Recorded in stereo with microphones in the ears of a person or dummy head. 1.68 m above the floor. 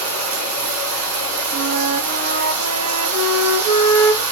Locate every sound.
0.0 s running water: 70° right (ahead or behind), 0.7 m
1.5 s a flute: 60° right (ahead or behind), 0.5 m